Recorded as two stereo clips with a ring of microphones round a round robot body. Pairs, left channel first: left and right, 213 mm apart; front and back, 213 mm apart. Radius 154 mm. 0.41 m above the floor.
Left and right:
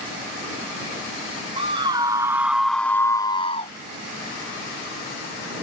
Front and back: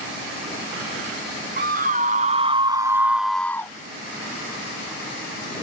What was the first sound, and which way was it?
A scream, 150° right.